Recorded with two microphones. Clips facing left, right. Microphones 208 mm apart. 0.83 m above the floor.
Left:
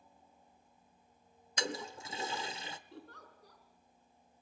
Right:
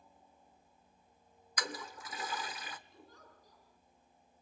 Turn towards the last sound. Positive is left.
turn(degrees=75)  # may be behind; listen again after turning